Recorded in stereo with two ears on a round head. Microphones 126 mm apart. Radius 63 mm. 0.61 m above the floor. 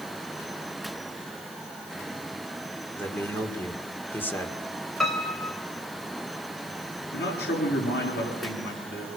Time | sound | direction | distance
3.0 | a man speaking | 15° left (ahead or behind) | 2.0 m
5.0 | a piano | 5° left (ahead or behind) | 2.5 m
7.1 | a man speaking | 85° left | 7.5 m